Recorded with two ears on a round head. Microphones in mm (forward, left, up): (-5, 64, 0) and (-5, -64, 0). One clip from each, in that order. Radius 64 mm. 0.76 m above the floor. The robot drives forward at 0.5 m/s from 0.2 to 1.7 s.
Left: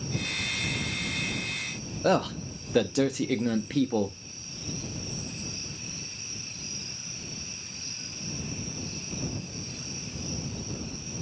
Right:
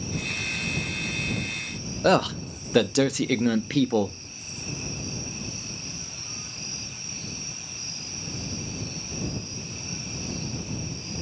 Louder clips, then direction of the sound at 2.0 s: Right 4 dB; 20° right (ahead or behind).